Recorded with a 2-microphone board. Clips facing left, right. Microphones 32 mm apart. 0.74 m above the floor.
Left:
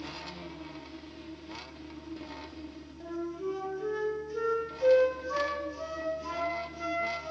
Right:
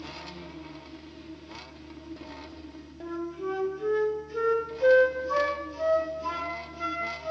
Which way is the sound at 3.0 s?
20° right (ahead or behind).